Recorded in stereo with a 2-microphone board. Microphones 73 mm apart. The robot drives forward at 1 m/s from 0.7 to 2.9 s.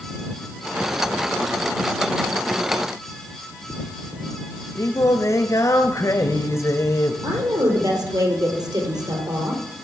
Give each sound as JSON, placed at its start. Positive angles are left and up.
{"t": 4.8, "sound": "singing", "side_deg": 50, "distance_m": 0.8}
{"t": 7.2, "sound": "a woman speaking", "side_deg": -65, "distance_m": 3.0}